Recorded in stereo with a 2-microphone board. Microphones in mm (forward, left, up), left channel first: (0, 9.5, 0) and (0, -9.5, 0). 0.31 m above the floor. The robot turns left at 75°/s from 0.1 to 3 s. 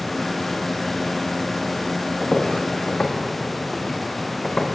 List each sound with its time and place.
2.2 s footsteps: centre (ahead or behind), 1.7 m; by 4.7 s 80° left, 1.9 m